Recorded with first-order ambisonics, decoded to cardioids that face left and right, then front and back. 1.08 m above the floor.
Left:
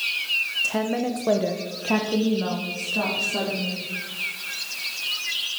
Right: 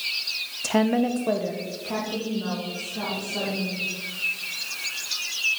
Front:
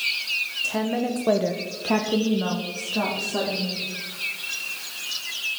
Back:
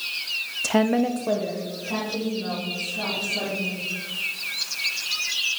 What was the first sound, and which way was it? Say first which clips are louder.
A woman speaking: right 2 dB, back 4 dB; 145° right.